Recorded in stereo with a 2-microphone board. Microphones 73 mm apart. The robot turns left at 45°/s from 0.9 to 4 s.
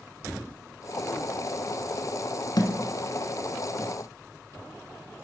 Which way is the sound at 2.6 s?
65° left (ahead or behind).